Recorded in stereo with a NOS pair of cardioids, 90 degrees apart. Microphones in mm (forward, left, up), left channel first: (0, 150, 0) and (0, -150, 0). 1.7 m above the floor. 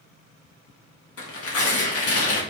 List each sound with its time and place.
1.2 s tearing paper: 55° left, 1.5 m